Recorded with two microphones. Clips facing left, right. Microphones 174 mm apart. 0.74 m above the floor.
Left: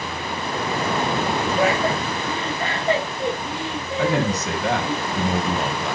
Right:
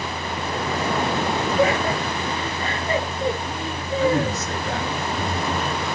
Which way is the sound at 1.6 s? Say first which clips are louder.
Right 1 dB; 85° left.